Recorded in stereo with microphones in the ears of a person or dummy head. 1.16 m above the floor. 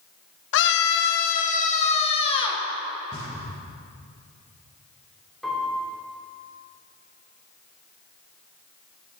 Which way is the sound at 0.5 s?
60° left (ahead or behind).